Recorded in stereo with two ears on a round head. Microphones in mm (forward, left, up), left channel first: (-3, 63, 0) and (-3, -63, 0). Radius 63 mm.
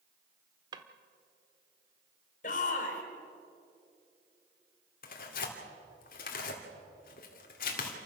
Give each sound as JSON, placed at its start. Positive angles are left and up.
{"t": 0.7, "sound": "a drawer", "side_deg": -30, "distance_m": 1.1}
{"t": 2.4, "sound": "a shout", "side_deg": 60, "distance_m": 3.5}
{"t": 5.0, "sound": "tearing paper", "side_deg": 70, "distance_m": 2.5}